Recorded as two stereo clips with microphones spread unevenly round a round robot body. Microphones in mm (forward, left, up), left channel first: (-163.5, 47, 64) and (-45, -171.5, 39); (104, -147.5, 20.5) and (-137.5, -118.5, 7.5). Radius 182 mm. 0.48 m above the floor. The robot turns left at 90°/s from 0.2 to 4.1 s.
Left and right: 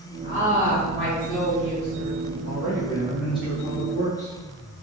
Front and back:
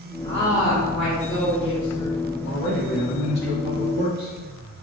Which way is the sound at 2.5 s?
45° right.